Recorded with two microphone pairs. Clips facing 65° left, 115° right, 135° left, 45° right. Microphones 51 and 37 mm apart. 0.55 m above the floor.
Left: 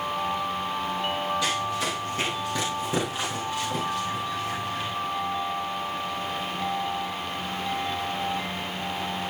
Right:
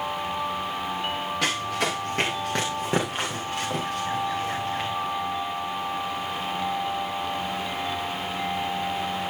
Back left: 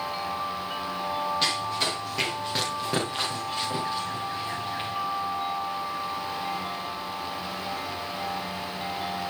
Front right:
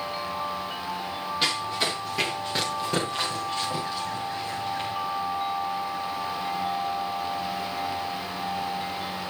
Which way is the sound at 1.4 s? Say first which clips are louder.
Right 1 dB, even; 125° right.